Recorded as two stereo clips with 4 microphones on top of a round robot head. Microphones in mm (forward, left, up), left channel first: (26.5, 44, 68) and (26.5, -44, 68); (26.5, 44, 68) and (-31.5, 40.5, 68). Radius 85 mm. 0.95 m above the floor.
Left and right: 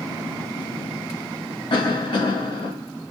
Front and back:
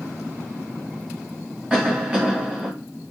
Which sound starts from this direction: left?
A cough, at 1.7 s.